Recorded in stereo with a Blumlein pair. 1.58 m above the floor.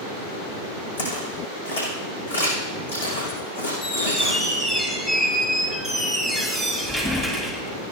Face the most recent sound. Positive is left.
turn(degrees=10)